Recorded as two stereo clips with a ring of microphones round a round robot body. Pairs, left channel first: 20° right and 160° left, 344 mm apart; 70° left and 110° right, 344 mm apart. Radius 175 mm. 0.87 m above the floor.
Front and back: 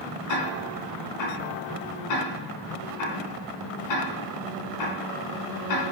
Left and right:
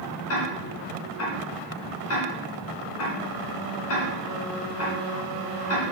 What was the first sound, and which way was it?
Ticking, 15° left.